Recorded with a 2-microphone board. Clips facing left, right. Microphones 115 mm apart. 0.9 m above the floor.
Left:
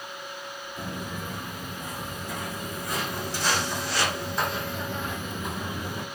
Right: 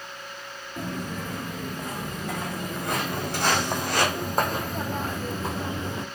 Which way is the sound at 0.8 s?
75° right (ahead or behind).